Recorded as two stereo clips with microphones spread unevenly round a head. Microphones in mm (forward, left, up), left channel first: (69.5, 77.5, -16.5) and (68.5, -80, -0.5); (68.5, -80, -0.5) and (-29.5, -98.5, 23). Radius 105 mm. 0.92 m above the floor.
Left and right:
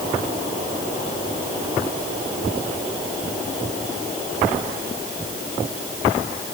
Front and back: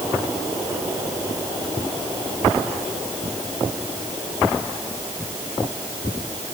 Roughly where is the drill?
No drill in this recording.